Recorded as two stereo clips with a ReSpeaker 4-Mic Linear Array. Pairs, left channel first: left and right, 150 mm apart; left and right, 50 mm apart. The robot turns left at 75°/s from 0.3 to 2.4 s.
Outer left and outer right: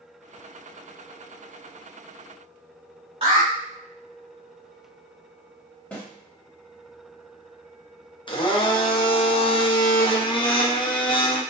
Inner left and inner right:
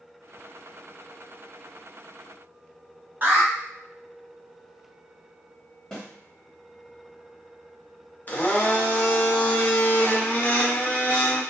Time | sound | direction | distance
3.2 | an alarm | 40° right (ahead or behind) | 1.1 m
5.9 | a snare drum | 10° left (ahead or behind) | 1.3 m
8.3 | a blender | 35° left (ahead or behind) | 0.5 m